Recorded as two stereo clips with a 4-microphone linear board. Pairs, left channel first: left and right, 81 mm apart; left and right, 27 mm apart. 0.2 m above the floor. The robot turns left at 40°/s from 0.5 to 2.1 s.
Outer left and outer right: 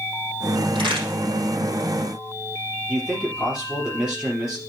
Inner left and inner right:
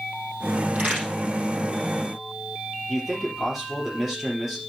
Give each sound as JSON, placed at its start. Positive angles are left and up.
{"t": 0.8, "sound": "a crack", "side_deg": -80, "distance_m": 4.0}
{"t": 2.9, "sound": "a man speaking", "side_deg": -5, "distance_m": 4.0}